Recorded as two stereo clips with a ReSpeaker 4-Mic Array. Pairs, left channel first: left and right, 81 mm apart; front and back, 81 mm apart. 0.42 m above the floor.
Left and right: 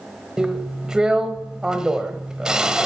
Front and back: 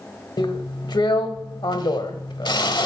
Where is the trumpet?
No trumpet in this recording.